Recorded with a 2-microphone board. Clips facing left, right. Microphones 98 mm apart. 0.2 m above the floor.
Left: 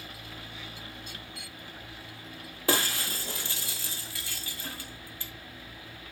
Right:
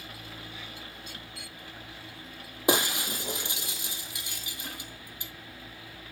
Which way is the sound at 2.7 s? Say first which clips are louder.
Right 3 dB; 20° right (ahead or behind).